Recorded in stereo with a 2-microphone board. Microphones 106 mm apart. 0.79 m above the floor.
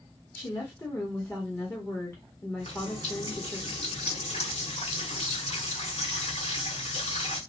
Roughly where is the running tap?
Left.